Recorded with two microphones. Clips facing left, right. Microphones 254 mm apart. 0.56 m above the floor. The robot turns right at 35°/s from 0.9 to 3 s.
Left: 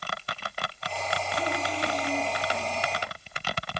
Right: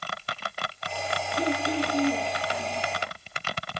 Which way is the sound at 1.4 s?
140° right.